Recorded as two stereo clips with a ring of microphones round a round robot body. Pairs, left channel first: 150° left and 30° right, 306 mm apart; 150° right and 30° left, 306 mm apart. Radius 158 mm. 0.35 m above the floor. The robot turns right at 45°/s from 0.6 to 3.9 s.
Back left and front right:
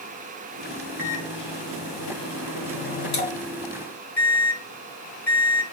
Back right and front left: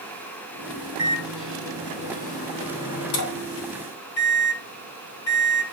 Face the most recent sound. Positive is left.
turn(degrees=-130)